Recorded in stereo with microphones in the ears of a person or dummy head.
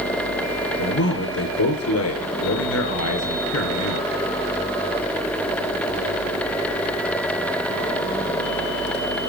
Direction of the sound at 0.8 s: 75° left (ahead or behind).